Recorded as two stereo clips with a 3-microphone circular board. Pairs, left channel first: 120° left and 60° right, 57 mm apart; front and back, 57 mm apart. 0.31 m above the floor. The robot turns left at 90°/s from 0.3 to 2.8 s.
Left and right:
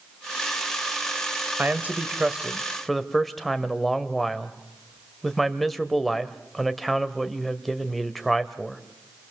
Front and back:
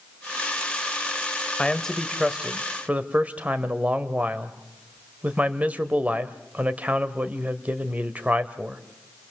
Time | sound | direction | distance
1.6 | a man speaking | 45° right | 1.2 m